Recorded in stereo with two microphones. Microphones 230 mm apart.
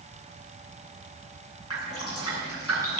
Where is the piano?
I don't hear a piano.